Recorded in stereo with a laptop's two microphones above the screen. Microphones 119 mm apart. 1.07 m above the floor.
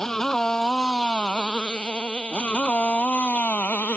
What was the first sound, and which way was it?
A motorcycle, 5° left (ahead or behind).